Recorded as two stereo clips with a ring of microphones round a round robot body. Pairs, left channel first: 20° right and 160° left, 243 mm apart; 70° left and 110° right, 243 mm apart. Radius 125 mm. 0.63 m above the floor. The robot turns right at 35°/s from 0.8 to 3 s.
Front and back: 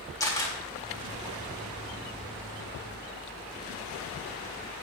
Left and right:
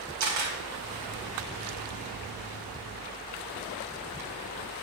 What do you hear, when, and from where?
0.2 s a camera shutter: 100° right, 4 m